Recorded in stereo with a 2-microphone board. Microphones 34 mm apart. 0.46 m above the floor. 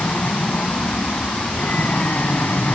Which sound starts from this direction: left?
An aircraft, at 0.0 s.